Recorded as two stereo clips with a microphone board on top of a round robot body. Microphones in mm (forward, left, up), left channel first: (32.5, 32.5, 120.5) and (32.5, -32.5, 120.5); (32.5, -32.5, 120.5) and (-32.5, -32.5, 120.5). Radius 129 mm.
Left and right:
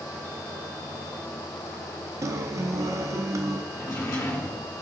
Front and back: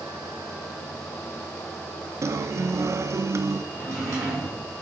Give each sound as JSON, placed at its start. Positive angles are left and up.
{"t": 2.2, "sound": "a guitar", "azimuth_deg": -135, "distance_m": 0.6}
{"t": 3.7, "sound": "a drawer", "azimuth_deg": 125, "distance_m": 3.5}